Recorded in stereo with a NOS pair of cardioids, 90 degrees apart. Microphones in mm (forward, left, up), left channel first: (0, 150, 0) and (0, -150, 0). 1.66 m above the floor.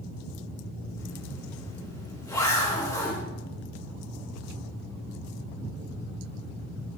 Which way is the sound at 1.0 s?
10° left.